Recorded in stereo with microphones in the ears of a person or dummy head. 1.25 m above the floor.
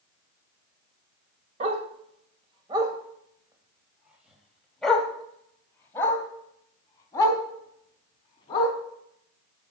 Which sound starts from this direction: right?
A dog barking, at 1.6 s.